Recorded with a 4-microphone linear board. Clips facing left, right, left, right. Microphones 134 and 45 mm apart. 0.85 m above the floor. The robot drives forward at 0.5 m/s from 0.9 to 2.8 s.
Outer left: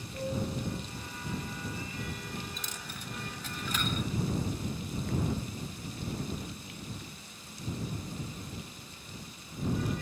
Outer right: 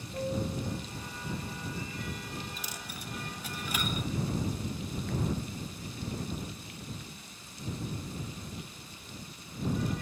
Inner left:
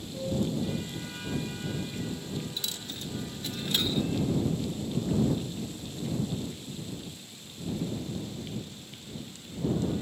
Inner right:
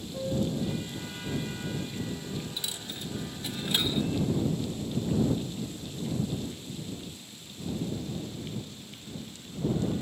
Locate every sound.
0.1 s a piano: 25° right (ahead or behind), 4 m
2.6 s a dropped coin: 10° right (ahead or behind), 0.5 m